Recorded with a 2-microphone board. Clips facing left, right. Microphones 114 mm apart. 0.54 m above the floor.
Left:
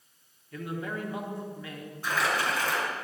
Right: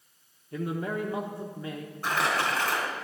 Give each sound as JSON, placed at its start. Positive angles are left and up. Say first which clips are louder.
{"t": 0.5, "sound": "a man speaking", "louder": "right 4 dB", "side_deg": -30, "distance_m": 0.9}
{"t": 2.0, "sound": "crumpling", "louder": "right 1 dB", "side_deg": -55, "distance_m": 4.5}